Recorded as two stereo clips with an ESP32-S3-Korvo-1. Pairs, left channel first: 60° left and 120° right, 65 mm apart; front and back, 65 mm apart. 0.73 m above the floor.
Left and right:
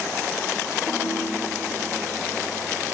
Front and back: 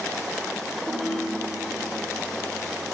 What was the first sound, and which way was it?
A ringtone, 95° left.